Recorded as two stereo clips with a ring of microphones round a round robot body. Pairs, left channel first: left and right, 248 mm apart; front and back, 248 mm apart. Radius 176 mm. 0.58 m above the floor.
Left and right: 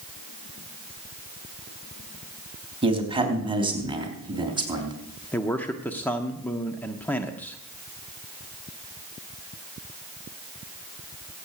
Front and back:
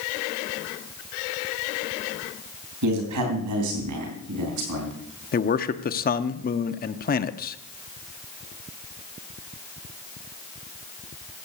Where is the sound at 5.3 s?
10° left, 0.7 m.